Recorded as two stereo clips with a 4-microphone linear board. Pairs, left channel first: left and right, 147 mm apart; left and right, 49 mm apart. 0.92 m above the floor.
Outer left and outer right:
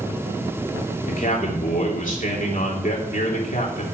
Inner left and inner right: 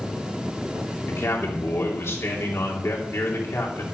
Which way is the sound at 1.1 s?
65° left (ahead or behind).